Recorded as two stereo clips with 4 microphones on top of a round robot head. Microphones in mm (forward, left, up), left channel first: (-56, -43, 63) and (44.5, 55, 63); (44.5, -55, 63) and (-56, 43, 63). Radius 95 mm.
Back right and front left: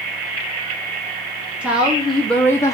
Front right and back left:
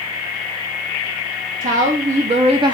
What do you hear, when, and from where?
1.6 s a woman speaking: 125° left, 0.9 m; by 2.8 s 175° left, 0.6 m